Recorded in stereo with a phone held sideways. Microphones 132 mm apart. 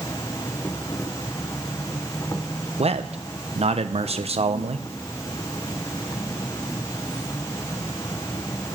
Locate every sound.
0.0 s an insect: 25° left (ahead or behind), 0.9 m
2.8 s a man speaking: 50° right (ahead or behind), 1.1 m